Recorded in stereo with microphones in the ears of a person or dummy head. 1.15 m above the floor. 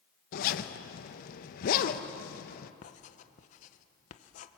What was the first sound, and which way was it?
A zipper, 50° left (ahead or behind).